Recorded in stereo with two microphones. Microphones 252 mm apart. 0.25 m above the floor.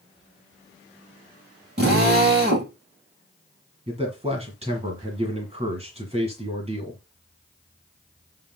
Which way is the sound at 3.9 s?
25° right (ahead or behind).